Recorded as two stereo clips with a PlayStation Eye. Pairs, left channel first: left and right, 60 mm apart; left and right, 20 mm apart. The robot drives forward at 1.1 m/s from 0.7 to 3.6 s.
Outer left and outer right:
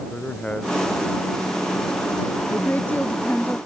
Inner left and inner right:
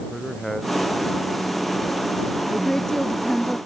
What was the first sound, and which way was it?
A man speaking, 15° left (ahead or behind).